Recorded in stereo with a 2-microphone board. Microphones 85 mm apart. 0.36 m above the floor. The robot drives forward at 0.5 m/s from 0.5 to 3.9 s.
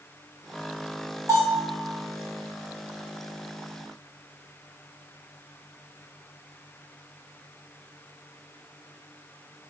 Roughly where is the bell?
Right.